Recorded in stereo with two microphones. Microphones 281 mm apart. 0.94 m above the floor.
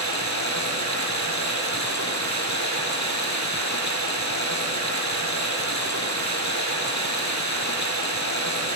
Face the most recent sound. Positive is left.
turn(degrees=80)